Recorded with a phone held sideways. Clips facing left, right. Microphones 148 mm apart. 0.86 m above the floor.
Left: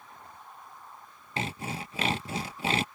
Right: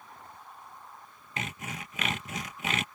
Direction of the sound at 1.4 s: 30° left (ahead or behind).